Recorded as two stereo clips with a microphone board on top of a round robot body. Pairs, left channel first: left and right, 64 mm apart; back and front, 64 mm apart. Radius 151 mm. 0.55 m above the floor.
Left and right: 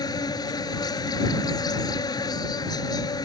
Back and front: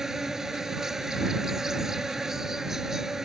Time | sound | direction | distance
0.0 | an insect | 85° left | ?